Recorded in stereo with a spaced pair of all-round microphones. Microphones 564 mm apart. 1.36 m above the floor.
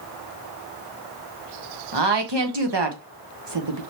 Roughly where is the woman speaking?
Right.